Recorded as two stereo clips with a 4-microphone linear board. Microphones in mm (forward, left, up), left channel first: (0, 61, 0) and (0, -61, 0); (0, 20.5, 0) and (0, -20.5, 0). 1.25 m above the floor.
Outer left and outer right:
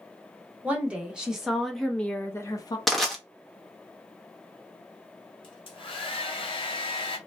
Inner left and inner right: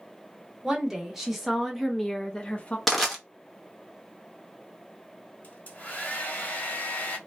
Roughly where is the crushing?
Centre.